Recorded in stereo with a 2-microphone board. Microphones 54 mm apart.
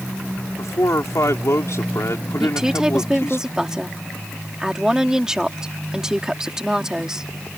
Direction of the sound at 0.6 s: 75° left (ahead or behind).